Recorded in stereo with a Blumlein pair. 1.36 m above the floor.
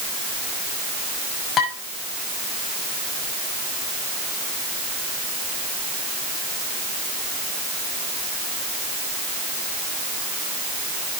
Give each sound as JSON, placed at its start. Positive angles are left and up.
{"t": 1.6, "sound": "dishes clattering", "azimuth_deg": 25, "distance_m": 6.5}